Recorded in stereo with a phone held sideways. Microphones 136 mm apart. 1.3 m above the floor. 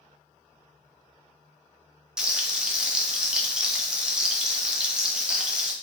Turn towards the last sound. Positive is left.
turn(degrees=-5)  # may be behind; listen again after turning